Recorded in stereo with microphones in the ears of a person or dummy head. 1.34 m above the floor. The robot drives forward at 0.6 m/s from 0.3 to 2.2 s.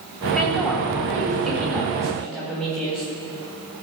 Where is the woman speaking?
Centre (ahead or behind), 4 m.